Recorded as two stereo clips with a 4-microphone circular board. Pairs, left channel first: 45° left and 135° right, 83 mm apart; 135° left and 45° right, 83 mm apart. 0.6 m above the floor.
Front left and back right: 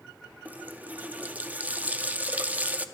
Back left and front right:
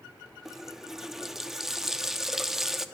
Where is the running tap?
120° right, 0.5 m.